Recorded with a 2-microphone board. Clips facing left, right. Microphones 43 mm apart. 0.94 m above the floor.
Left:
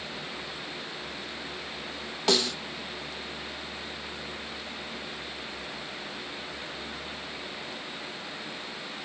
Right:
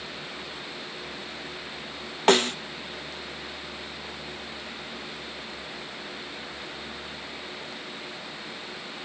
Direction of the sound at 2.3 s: 40° right (ahead or behind).